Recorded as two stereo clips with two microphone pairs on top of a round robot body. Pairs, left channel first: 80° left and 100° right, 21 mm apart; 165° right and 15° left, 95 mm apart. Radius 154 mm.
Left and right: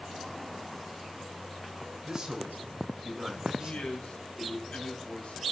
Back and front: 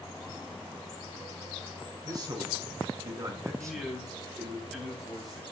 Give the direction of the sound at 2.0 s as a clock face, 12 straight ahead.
1 o'clock.